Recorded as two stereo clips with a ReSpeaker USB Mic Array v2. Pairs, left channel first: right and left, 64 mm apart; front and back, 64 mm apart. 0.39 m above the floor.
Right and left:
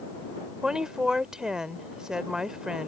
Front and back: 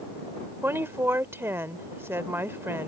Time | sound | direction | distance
0.6 | a woman speaking | 165° left | ?